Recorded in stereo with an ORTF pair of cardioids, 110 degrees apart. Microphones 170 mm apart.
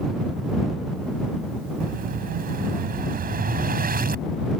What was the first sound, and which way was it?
An explosion, 60° right.